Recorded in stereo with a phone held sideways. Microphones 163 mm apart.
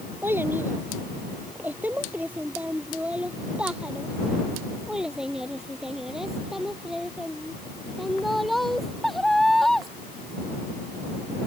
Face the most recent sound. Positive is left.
turn(degrees=0)  # may be behind; listen again after turning